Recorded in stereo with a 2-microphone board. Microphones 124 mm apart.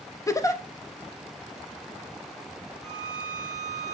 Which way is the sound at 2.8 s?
25° left (ahead or behind).